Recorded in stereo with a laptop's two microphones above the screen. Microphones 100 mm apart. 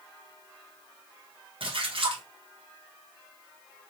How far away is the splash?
About 1.0 m.